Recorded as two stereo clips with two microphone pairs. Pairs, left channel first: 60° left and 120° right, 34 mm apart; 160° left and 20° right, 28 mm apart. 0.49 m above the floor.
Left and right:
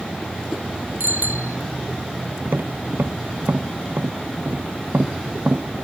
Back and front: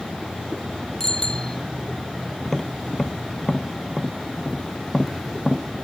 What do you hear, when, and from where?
1.0 s a bicycle bell: 130° right
2.4 s tapping: 120° right